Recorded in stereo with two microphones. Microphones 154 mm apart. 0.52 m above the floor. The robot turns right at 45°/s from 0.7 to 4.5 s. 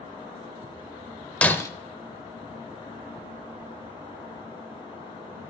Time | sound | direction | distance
1.4 | breaking glass | 10° left (ahead or behind) | 0.7 m